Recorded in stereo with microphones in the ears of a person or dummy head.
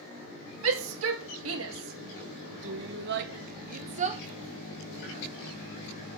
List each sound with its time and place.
0.6 s a shout: 80° right, 2 m; by 4.2 s 35° right (ahead or behind), 0.9 m